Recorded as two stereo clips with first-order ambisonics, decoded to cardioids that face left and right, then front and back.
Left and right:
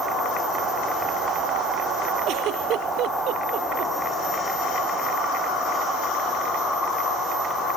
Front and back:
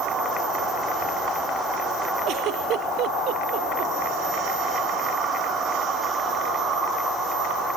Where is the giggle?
135° right.